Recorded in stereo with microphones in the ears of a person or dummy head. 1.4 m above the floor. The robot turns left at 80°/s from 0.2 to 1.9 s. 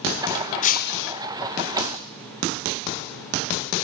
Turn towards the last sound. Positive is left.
turn(degrees=35)